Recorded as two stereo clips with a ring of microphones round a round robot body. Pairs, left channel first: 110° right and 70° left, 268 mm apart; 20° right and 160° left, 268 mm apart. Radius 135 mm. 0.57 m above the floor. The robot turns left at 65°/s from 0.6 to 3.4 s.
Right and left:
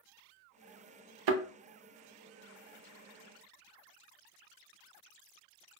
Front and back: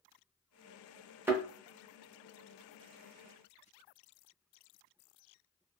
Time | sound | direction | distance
1.3 | a thud | 75° left | 0.7 m